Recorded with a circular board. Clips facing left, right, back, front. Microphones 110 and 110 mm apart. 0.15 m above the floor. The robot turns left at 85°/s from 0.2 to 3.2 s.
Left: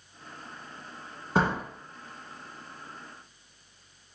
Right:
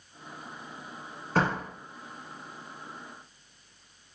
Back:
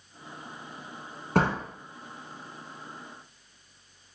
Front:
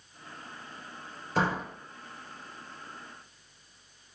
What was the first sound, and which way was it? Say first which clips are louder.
A door slam: left 1 dB, back 3 dB; 160° left.